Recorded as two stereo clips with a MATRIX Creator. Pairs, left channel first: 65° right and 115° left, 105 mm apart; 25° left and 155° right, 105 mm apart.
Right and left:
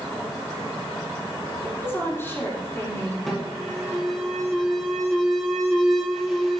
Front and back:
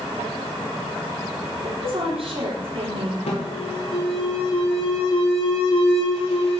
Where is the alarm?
20° left, 6 m.